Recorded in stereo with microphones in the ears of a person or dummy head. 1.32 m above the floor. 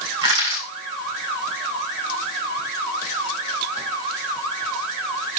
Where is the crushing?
25° right (ahead or behind), 3 m.